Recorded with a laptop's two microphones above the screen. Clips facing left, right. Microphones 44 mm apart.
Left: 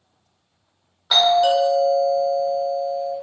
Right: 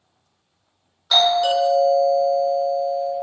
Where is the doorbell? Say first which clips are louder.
Left 1 dB; 20° left (ahead or behind), 1.4 m.